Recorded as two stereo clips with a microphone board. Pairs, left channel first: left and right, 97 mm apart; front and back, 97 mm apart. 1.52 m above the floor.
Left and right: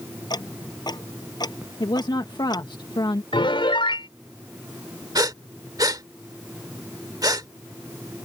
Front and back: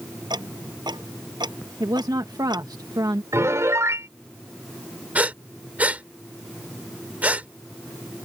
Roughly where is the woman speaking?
Behind left.